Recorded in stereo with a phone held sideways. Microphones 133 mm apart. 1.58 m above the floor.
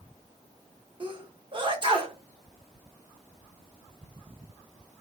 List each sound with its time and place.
1.0 s a sneeze: 40° right (ahead or behind), 0.7 m